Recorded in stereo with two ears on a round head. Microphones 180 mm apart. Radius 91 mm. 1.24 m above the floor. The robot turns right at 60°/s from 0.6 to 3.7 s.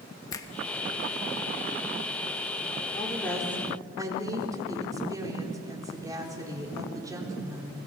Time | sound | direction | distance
0.3 | a finger snap | 20° left (ahead or behind) | 1.1 m
2.9 | a woman speaking | 155° left | 4.5 m